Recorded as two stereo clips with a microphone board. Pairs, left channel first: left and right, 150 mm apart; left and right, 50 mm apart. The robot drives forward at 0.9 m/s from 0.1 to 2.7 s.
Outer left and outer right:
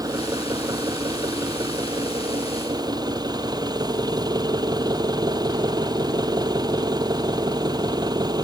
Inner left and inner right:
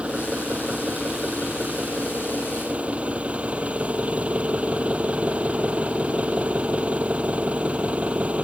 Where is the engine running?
25° right (ahead or behind).